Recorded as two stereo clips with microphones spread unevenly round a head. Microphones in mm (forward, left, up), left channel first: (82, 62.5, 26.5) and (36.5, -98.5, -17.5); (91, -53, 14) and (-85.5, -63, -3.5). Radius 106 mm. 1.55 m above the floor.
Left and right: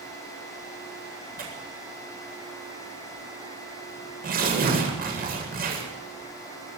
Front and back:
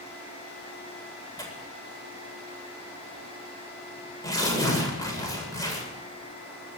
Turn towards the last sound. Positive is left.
turn(degrees=-65)